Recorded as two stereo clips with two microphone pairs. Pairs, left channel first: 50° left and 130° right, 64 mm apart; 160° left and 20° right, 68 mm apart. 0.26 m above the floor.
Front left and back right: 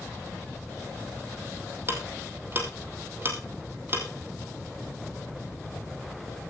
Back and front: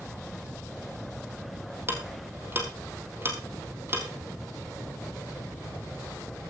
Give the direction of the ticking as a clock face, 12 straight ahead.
2 o'clock.